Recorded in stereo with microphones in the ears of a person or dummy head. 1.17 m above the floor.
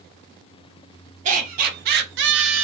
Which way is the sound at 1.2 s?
45° right (ahead or behind).